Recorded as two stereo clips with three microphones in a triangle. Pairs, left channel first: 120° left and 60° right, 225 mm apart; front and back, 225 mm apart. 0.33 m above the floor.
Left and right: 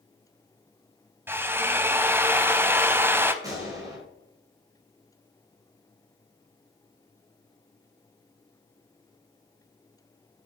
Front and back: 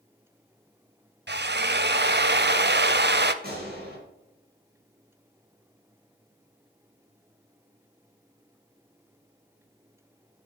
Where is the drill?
140° right, 0.6 m.